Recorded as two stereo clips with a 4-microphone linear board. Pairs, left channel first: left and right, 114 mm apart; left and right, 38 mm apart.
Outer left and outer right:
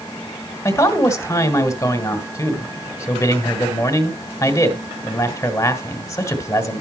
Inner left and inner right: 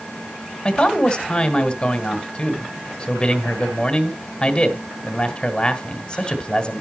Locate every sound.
0.7 s a man speaking: 25° left (ahead or behind), 1.5 m